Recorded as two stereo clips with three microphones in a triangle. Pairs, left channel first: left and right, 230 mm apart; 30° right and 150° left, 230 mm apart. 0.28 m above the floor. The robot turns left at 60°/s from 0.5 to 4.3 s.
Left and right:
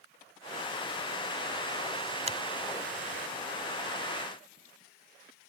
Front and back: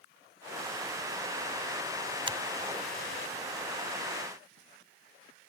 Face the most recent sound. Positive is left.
turn(degrees=95)